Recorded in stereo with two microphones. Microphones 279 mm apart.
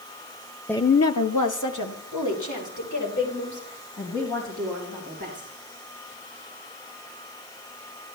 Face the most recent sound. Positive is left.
turn(degrees=70)  # may be behind; listen again after turning